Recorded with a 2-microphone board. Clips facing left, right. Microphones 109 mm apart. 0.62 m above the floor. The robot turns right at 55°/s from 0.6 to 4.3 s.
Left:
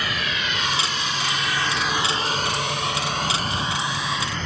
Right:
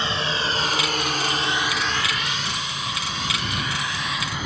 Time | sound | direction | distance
0.0 | a drone | 30° right (ahead or behind) | ?